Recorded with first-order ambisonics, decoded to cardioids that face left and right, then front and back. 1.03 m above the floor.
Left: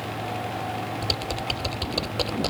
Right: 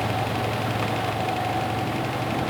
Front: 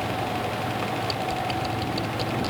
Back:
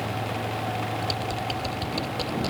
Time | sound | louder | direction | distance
1.0 | typing on a keyboard | right 2 dB, front 2 dB | 95° left | ?